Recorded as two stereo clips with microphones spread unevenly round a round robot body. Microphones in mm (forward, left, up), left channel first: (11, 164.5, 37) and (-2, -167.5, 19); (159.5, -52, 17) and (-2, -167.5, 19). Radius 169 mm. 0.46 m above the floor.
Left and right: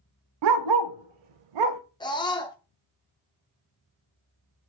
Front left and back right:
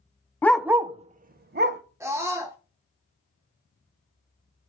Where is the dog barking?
45° right, 0.6 m; by 1.8 s 110° right, 1.0 m.